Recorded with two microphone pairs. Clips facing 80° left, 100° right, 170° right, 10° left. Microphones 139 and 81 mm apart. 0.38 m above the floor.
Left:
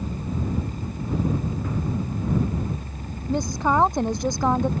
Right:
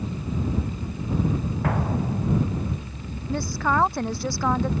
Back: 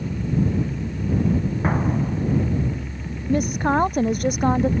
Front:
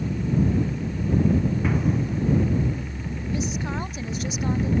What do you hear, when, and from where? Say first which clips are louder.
1.6 s an explosion: right 2 dB, back 2 dB; 115° right
3.3 s a woman speaking: left 3 dB, back 9 dB; 150° left